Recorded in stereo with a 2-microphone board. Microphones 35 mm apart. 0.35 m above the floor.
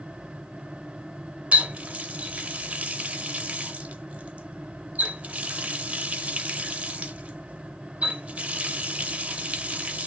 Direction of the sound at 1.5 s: 40° right (ahead or behind).